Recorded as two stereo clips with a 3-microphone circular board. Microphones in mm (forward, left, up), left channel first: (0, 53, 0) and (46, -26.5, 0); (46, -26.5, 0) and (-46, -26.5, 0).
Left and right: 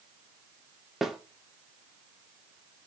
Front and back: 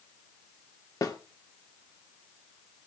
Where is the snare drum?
25° left, 1.5 m.